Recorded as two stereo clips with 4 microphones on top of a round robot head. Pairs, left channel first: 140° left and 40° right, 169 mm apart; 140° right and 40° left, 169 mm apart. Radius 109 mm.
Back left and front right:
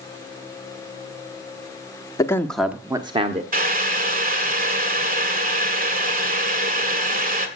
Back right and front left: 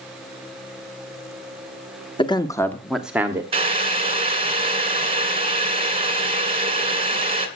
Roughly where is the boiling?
Ahead.